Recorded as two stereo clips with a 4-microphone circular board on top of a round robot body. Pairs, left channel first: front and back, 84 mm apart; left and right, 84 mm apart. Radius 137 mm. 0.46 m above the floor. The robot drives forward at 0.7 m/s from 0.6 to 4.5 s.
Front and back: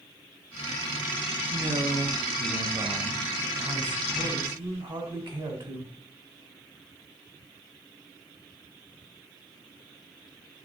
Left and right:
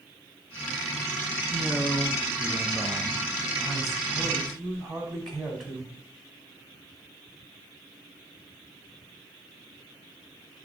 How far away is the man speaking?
About 1.6 m.